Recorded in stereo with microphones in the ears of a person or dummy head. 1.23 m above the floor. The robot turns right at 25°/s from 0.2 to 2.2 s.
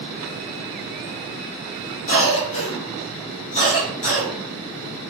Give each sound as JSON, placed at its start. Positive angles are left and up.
{"t": 2.1, "sound": "a cough", "side_deg": 35, "distance_m": 0.7}